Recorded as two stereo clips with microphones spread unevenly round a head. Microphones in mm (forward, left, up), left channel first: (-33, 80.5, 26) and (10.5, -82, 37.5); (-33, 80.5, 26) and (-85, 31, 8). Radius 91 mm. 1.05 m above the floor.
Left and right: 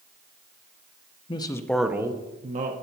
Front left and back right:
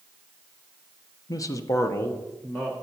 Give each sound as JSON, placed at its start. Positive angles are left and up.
{"t": 1.3, "sound": "a man speaking", "azimuth_deg": 70, "distance_m": 0.9}